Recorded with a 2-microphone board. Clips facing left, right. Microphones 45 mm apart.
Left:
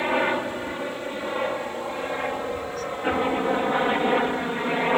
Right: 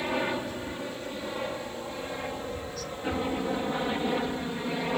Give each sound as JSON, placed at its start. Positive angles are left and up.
{"t": 0.0, "sound": "a helicopter", "side_deg": 30}